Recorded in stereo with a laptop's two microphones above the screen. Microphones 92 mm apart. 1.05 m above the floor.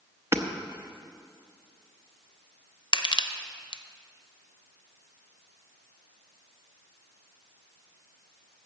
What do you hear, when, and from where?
0.3 s hammering: 30° right (ahead or behind), 0.7 m
2.9 s crushing: 55° left (ahead or behind), 0.5 m